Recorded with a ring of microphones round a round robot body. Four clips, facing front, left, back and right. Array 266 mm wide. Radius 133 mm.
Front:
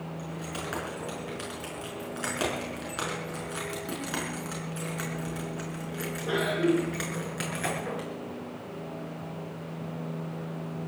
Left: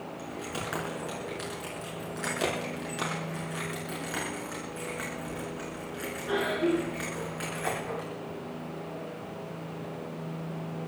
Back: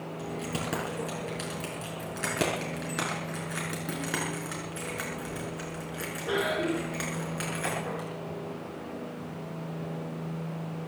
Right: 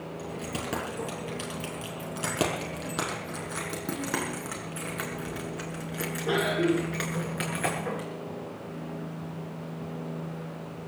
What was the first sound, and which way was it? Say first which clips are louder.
Keys jangling: right 2 dB, back 5 dB; 135° right.